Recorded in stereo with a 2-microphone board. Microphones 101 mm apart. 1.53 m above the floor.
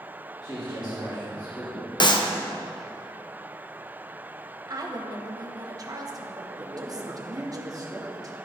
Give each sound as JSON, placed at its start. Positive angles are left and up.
{"t": 0.4, "sound": "a man speaking", "side_deg": 45, "distance_m": 3.0}
{"t": 2.0, "sound": "a clap", "side_deg": 50, "distance_m": 0.7}
{"t": 4.7, "sound": "a woman speaking", "side_deg": -40, "distance_m": 1.1}
{"t": 6.6, "sound": "a man speaking", "side_deg": -40, "distance_m": 1.5}